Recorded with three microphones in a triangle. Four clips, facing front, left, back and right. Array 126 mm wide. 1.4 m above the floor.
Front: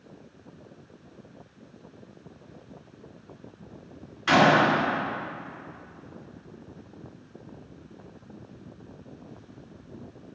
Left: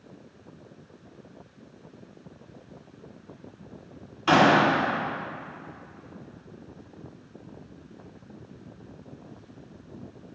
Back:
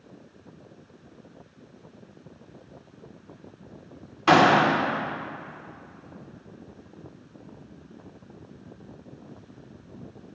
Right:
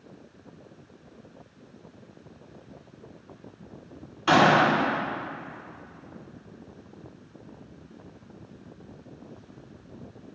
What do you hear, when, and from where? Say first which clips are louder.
4.3 s a gunshot: even, back 2 dB; 175° right, 4 m